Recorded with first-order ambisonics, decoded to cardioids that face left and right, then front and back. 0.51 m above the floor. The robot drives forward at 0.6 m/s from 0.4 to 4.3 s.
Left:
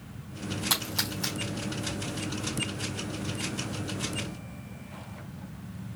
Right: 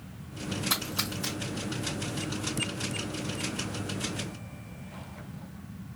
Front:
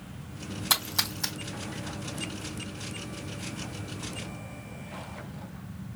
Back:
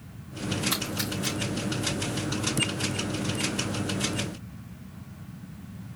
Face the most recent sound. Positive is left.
turn(degrees=50)